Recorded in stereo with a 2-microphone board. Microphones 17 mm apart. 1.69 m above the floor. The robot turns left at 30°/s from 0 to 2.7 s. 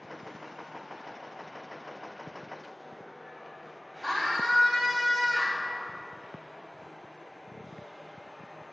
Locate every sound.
4.0 s a scream: centre (ahead or behind), 4 m